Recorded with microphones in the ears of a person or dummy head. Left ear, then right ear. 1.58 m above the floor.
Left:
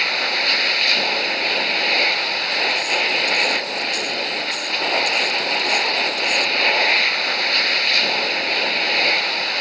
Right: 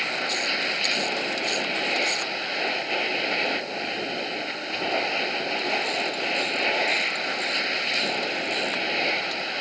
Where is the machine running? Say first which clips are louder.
Left 7 dB; 35° left (ahead or behind).